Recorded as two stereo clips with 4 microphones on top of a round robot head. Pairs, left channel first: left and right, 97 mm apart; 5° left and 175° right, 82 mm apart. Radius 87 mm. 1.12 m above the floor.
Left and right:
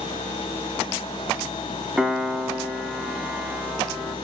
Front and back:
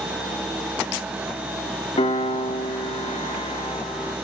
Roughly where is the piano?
Ahead.